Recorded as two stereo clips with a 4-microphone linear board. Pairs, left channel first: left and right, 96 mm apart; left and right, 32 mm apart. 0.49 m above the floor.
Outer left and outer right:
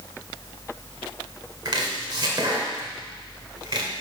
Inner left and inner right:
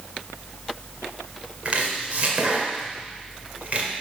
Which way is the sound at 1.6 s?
45° right (ahead or behind).